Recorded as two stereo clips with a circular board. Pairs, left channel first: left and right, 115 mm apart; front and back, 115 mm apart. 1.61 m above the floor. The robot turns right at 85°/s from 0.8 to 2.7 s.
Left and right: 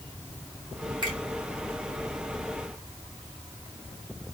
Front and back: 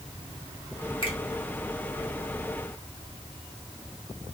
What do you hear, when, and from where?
1.0 s a finger snap: 40° right, 1.9 m; by 1.2 s 25° right, 1.9 m